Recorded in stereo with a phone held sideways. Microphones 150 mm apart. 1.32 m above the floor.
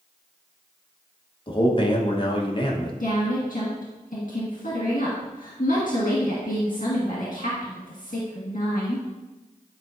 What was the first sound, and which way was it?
A man speaking, 35° left (ahead or behind).